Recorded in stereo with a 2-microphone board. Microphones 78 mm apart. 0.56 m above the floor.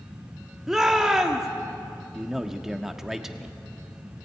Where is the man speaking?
5° right (ahead or behind), 1.2 m.